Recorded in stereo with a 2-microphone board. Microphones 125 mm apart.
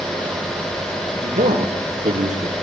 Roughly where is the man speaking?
Right.